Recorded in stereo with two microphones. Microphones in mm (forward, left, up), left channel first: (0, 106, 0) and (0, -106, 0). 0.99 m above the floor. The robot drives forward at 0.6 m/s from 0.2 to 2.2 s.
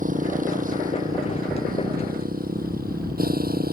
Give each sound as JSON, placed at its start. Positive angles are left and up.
{"t": 0.0, "sound": "a motorcycle", "side_deg": -40}